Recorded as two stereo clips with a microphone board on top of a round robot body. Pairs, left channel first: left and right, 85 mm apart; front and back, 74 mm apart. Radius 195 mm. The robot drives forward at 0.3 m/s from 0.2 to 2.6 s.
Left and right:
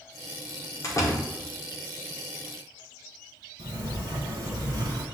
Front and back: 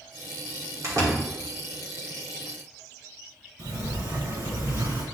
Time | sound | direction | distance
0.8 | a door slam | 140° left | 2 m
3.6 | a sliding door | 140° right | 1.4 m